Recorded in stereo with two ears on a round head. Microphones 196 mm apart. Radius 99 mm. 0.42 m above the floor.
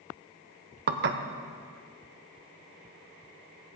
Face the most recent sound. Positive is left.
turn(degrees=-50)  # may be behind; listen again after turning